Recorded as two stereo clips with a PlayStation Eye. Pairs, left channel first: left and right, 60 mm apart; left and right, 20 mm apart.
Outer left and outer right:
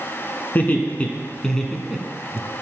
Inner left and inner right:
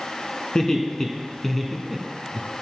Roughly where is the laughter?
Left.